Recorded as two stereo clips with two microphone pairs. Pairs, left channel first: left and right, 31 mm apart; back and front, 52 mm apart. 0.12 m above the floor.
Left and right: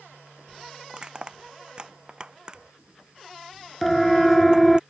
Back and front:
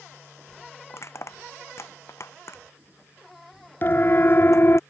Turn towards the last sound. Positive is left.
turn(degrees=175)